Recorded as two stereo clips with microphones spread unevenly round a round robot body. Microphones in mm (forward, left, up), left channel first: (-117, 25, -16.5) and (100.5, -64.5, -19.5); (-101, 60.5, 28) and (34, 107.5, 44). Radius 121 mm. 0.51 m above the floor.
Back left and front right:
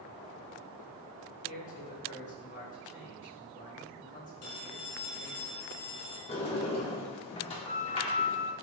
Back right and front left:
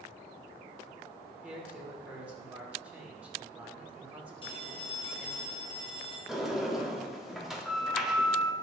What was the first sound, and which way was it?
A man speaking, 100° left.